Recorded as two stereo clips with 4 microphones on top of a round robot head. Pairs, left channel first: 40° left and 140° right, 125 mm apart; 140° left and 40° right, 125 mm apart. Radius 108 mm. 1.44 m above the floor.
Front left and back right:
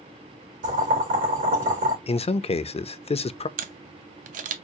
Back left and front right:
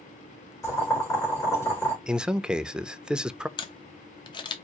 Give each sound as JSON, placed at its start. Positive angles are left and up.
{"t": 0.6, "sound": "boiling", "azimuth_deg": -150, "distance_m": 3.0}
{"t": 2.1, "sound": "a man speaking", "azimuth_deg": 45, "distance_m": 0.5}
{"t": 3.6, "sound": "a camera shutter", "azimuth_deg": -160, "distance_m": 0.6}